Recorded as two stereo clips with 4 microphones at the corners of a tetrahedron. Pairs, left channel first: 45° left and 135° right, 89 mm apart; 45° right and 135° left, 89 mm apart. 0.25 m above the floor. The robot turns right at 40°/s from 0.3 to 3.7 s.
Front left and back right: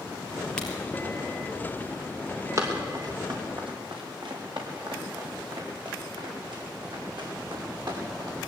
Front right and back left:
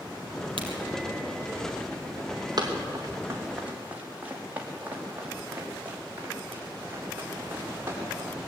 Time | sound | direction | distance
0.6 | a crack | 125° left | 4 m
2.6 | running footsteps | 170° left | 5 m